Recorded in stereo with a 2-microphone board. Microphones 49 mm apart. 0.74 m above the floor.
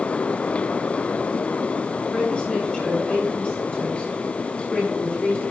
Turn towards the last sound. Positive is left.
turn(degrees=20)  # may be behind; listen again after turning